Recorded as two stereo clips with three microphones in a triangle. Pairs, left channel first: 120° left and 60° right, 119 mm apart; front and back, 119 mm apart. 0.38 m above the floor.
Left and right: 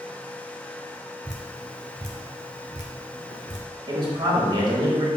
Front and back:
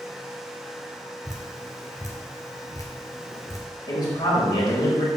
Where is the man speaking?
35° right, 1.5 m.